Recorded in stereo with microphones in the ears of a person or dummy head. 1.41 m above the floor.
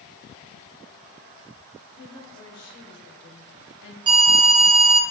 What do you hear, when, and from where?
2.0 s a woman speaking: 75° left (ahead or behind), 1.8 m; by 4.0 s 65° left (ahead or behind), 1.0 m
4.1 s an alarm: 25° right (ahead or behind), 0.6 m